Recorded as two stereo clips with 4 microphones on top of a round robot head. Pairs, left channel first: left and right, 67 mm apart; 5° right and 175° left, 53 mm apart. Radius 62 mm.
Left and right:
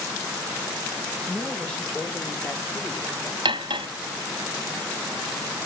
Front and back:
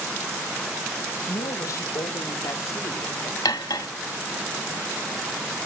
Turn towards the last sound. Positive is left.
turn(degrees=-50)